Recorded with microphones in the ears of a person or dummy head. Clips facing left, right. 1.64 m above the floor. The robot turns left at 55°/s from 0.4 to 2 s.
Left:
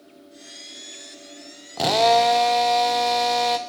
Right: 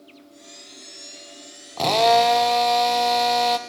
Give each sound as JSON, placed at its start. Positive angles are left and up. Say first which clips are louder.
{"t": 1.8, "sound": "a drill", "louder": "even", "side_deg": 10, "distance_m": 0.7}